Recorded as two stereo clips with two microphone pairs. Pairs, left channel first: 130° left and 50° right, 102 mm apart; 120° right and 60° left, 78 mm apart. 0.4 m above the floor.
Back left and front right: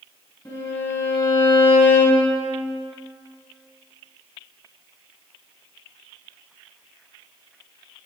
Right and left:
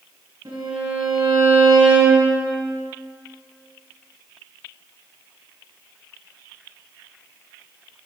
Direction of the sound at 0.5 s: 65° left.